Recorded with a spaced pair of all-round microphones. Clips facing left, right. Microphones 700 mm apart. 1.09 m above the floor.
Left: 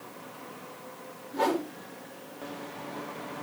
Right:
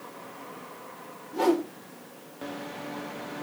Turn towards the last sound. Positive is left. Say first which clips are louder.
# right 5 dB
turn(degrees=-55)  # may be behind; listen again after turning